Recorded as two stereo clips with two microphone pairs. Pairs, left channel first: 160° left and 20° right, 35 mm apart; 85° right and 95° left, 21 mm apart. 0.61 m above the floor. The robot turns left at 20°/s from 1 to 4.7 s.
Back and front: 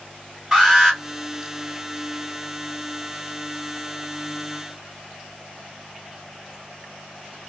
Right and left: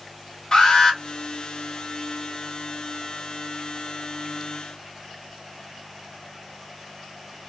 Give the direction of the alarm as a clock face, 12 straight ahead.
3 o'clock.